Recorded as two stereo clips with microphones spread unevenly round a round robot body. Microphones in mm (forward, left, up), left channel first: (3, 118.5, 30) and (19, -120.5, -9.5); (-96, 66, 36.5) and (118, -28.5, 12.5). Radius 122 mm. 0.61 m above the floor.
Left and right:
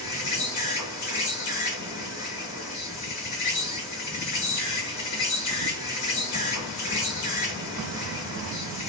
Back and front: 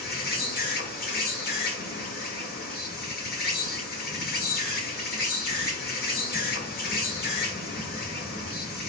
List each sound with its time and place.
0.0 s an insect: 105° left, 1.0 m